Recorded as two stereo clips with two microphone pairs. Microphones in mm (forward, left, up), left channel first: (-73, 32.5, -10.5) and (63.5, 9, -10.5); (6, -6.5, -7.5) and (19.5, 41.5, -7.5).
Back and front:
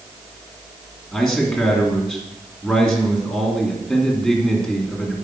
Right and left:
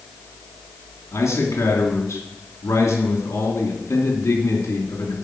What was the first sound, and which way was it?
A man speaking, 110° right.